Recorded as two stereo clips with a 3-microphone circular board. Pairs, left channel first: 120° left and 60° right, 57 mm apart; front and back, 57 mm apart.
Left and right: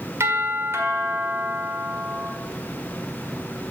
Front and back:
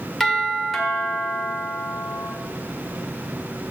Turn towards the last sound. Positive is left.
turn(degrees=-85)